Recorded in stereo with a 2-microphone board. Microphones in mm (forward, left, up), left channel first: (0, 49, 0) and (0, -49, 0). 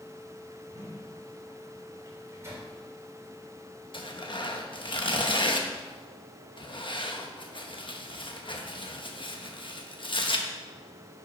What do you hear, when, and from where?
0.7 s a whoosh: 40° right (ahead or behind), 5.5 m
2.0 s a microwave: 30° right (ahead or behind), 3.5 m
3.9 s tearing paper: 60° left (ahead or behind), 1.1 m